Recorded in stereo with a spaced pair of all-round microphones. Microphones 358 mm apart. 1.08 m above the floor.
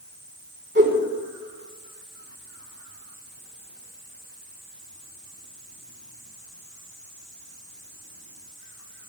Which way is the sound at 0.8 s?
30° right (ahead or behind).